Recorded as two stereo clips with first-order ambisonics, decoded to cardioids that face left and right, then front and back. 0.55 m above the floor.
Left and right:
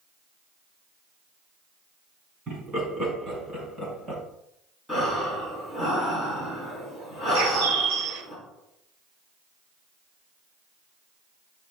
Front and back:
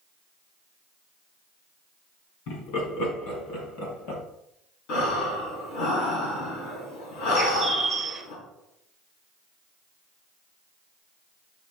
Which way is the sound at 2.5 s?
15° right.